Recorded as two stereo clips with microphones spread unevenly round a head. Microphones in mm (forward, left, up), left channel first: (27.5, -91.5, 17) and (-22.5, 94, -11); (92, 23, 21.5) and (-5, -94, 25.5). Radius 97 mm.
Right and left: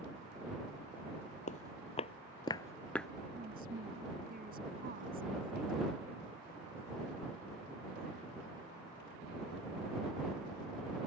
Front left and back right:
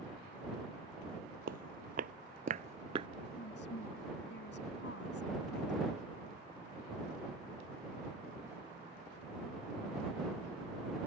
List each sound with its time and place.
1.5 s footsteps: 120° right; by 3.1 s 150° right
3.4 s a woman speaking: 60° left